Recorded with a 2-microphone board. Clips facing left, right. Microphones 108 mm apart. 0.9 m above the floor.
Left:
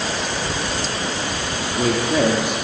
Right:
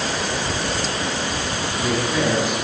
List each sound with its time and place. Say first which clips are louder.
1.6 s a woman speaking: left 4 dB; 65° left (ahead or behind), 2 m